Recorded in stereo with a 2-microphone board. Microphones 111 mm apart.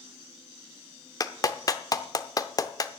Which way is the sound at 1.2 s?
35° left (ahead or behind).